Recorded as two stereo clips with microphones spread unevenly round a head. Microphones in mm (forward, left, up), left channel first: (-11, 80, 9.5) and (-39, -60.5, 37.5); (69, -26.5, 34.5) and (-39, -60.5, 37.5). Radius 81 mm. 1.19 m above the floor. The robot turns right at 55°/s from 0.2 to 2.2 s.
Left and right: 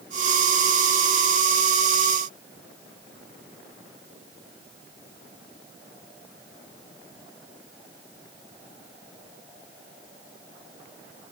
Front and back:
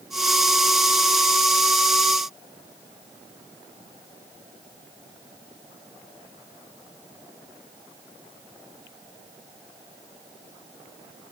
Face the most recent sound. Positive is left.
No sound to turn to.